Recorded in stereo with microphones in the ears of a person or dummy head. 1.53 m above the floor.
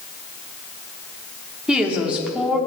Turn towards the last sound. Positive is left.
turn(degrees=-5)  # may be behind; listen again after turning